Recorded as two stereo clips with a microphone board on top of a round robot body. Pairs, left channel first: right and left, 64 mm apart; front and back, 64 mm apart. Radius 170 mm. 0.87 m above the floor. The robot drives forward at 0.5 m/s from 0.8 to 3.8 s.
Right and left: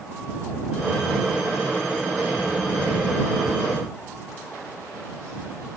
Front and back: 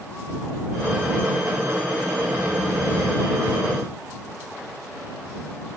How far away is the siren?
I don't hear a siren.